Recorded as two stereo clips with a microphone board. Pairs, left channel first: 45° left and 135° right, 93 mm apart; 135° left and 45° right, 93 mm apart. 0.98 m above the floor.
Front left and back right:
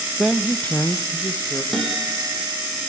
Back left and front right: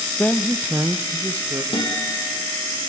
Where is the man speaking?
155° left, 0.7 m; by 1.6 s 5° right, 1.5 m.